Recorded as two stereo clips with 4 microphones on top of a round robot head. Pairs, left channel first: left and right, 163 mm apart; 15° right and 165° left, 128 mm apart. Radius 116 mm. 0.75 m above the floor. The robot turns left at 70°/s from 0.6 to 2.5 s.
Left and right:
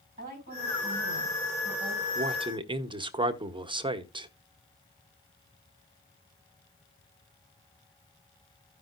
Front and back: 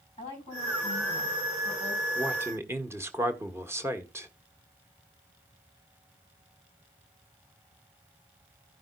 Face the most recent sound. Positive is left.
turn(degrees=-135)